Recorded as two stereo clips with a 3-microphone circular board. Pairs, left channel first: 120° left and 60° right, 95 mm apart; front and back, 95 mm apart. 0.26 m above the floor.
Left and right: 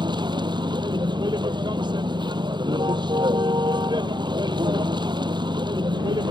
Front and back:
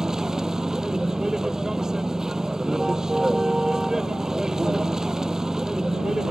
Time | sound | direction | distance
0.0 | a vehicle | 95° right | ?